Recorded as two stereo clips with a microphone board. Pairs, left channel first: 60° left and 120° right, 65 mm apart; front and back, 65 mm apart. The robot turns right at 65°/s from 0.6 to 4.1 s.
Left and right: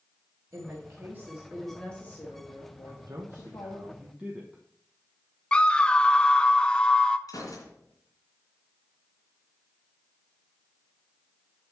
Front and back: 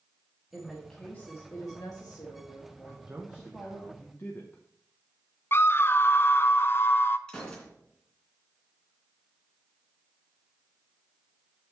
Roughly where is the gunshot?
Left.